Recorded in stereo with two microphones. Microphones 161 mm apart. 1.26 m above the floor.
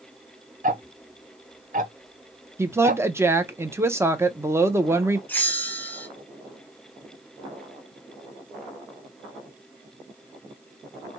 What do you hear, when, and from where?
0.6 s ticking: 50° right (ahead or behind), 0.6 m
2.6 s a woman speaking: 15° right (ahead or behind), 0.7 m
5.3 s a bell: 10° left (ahead or behind), 0.9 m